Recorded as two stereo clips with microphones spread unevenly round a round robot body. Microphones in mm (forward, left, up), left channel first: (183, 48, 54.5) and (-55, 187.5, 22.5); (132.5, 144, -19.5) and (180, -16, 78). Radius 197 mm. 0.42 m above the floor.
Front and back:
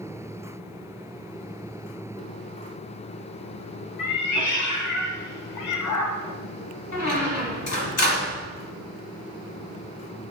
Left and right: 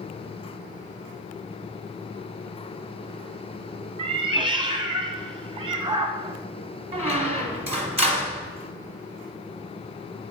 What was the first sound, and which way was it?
A cat meowing, 25° right.